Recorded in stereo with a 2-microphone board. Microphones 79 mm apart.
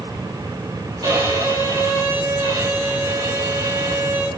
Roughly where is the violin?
Right.